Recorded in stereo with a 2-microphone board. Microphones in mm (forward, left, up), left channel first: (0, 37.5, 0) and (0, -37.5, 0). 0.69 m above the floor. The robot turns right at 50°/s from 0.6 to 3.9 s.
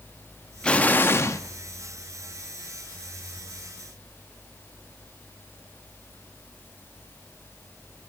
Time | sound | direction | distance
0.6 | an explosion | 15° left | 0.5 m